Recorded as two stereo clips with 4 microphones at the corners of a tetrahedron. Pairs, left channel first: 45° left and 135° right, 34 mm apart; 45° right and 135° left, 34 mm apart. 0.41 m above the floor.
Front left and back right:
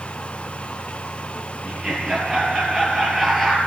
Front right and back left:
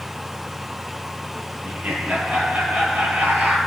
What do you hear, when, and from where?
1.6 s laughter: 150° left, 9 m; by 3.6 s 135° left, 9 m